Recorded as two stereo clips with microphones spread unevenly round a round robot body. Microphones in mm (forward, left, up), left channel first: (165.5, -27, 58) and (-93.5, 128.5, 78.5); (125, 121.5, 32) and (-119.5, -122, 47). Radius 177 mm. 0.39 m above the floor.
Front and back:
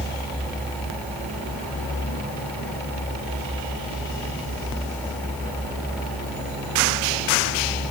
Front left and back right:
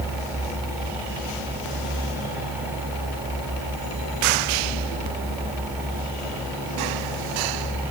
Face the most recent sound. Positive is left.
No sound to turn to.